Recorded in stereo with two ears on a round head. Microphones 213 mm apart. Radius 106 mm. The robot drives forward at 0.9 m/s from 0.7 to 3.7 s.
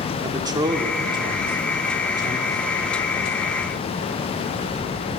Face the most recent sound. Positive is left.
turn(degrees=-10)  # may be behind; listen again after turning